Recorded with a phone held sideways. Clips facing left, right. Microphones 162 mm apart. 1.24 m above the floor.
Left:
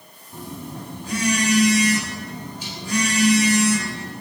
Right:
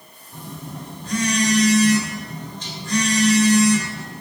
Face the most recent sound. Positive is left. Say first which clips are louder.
# left 1 dB
turn(degrees=10)  # may be behind; listen again after turning